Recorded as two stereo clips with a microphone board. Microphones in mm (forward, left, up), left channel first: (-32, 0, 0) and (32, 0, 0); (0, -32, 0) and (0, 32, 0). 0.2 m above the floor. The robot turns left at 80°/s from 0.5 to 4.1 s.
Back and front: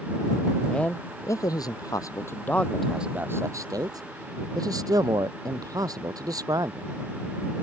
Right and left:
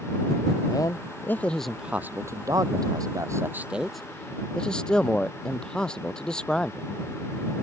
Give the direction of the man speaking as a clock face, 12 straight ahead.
3 o'clock.